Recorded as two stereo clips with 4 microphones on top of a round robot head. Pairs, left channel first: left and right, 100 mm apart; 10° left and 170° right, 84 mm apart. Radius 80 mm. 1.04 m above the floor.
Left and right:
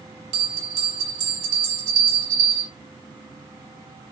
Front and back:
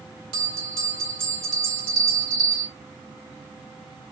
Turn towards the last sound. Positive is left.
turn(degrees=-135)